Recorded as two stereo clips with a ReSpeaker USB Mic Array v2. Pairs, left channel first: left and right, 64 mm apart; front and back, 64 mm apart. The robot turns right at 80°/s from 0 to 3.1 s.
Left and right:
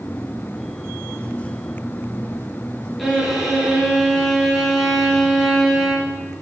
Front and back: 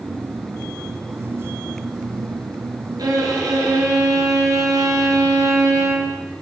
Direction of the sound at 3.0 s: 175° left.